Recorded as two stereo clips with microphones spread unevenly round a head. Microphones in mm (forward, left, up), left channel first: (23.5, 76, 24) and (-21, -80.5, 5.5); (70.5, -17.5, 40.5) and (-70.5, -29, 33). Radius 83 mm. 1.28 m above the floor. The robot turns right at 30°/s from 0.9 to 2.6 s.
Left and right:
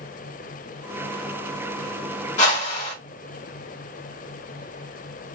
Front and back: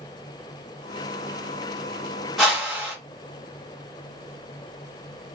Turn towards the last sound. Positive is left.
turn(degrees=100)